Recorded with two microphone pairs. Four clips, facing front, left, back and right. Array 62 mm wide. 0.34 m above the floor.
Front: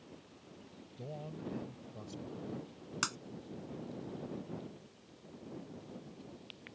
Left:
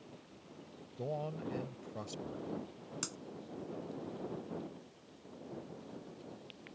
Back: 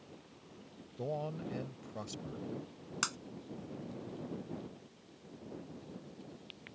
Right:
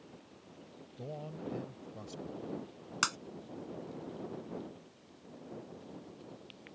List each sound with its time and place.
1.0 s a man speaking: 145° left
3.0 s breaking glass: 90° right